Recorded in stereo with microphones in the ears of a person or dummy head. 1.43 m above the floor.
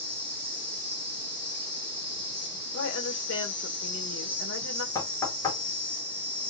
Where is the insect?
5° left (ahead or behind), 1.2 m.